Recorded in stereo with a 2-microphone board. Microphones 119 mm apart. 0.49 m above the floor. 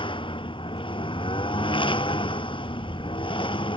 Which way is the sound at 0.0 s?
50° left (ahead or behind).